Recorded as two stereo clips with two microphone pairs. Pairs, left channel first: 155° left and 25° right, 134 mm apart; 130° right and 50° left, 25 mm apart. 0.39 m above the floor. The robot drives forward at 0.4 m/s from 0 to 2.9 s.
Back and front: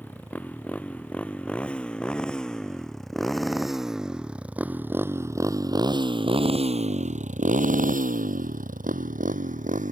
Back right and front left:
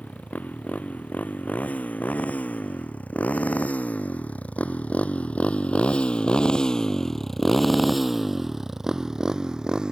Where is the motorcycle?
125° right; by 9.9 s 5° right.